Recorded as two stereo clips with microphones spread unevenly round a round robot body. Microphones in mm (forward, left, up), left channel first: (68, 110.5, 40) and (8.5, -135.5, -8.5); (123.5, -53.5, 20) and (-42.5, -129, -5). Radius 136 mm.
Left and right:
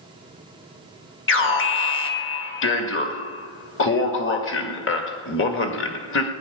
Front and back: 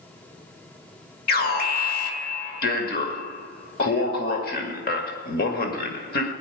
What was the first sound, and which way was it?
An alarm, 45° left.